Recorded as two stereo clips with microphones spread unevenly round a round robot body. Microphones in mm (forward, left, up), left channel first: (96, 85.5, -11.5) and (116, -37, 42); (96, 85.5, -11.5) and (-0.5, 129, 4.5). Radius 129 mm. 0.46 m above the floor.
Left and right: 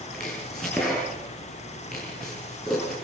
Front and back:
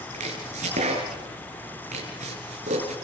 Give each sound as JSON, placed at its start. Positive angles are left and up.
{"t": 0.1, "sound": "chopping", "azimuth_deg": -175, "distance_m": 4.0}